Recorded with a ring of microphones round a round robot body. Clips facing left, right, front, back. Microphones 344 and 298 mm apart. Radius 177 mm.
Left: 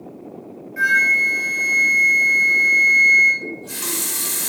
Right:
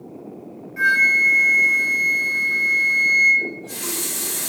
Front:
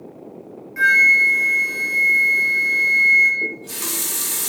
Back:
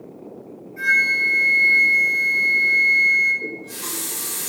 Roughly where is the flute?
Ahead.